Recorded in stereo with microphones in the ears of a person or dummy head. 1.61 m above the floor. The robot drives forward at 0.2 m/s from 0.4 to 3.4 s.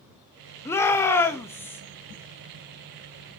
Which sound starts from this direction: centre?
A shout, at 0.7 s.